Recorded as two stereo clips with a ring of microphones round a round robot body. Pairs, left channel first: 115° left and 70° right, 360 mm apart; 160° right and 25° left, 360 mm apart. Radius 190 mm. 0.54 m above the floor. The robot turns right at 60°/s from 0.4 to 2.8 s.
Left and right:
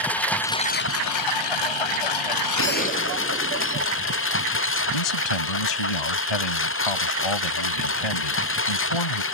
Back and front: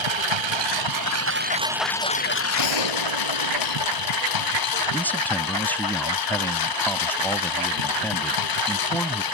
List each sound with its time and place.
0.0 s a lawn mower: 25° left; by 9.3 s 170° left
2.6 s a gunshot: 165° left; by 4.2 s straight behind
4.9 s a man speaking: 115° left